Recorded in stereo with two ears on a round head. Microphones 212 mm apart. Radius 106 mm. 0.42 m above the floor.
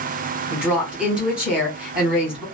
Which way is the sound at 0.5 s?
5° right (ahead or behind).